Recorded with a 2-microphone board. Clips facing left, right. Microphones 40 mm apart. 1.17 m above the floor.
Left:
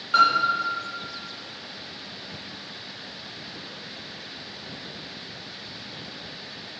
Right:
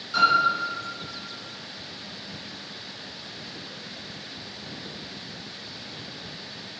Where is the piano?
45° left (ahead or behind), 4 m.